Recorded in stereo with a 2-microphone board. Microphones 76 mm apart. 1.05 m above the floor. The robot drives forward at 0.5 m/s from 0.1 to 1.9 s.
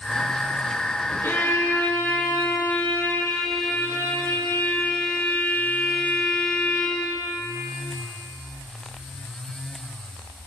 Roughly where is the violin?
Left.